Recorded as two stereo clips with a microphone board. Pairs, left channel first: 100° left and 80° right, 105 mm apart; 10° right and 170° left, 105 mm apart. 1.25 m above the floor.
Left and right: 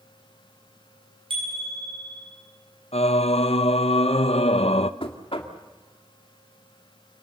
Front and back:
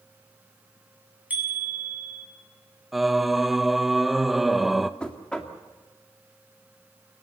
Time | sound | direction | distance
1.3 | a bicycle bell | 115° right | 7.5 m
2.9 | singing | 85° left | 0.8 m
5.0 | knocking | 70° left | 2 m